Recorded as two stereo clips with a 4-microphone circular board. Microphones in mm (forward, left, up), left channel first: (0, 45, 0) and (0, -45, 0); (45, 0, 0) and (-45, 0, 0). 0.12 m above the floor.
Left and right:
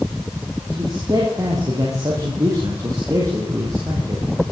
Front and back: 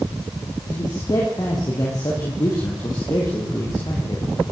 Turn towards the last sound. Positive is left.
turn(degrees=-45)